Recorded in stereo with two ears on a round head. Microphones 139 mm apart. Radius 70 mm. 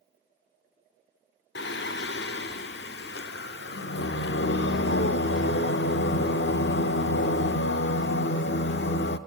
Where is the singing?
80° left, 0.5 m.